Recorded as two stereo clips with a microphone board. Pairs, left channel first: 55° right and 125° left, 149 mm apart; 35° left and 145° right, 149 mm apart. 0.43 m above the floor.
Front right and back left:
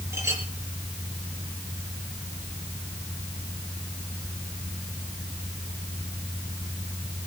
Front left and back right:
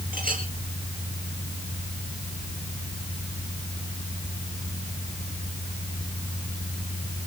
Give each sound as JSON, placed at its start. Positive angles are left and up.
{"t": 0.1, "sound": "a clink", "azimuth_deg": -165, "distance_m": 6.0}